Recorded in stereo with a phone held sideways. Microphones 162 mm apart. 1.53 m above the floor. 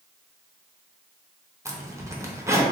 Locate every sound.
1.6 s a zipper: 15° right (ahead or behind), 0.6 m